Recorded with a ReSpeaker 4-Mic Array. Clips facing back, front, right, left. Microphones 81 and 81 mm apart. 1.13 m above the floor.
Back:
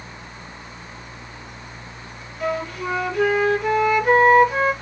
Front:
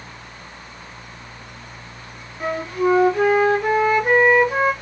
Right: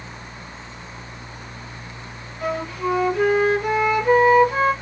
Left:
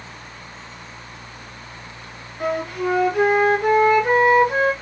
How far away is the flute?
About 1.3 m.